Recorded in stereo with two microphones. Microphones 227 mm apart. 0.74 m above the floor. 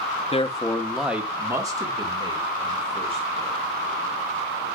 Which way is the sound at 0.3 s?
25° left (ahead or behind).